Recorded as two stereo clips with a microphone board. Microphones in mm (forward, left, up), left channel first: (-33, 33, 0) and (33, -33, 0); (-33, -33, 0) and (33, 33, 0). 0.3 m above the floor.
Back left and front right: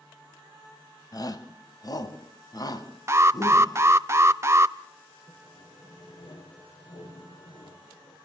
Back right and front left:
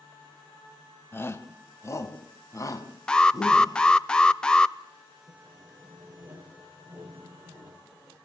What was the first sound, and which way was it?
A shout, 165° left.